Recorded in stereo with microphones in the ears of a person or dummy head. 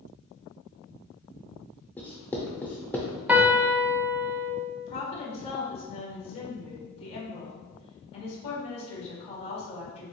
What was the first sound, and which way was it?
Writing, 10° left (ahead or behind).